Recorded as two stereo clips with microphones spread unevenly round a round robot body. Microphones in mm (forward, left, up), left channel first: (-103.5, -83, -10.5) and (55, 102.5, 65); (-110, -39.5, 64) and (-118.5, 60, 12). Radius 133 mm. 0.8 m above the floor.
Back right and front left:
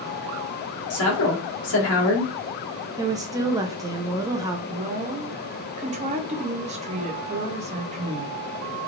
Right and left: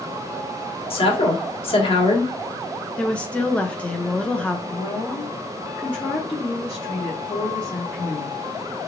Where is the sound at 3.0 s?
145° left, 0.5 m.